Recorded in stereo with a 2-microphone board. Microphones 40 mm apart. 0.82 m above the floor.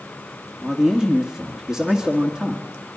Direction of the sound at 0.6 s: 15° right (ahead or behind).